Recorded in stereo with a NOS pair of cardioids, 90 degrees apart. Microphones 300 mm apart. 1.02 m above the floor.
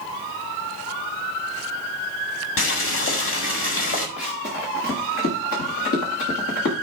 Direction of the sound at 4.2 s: 50° left.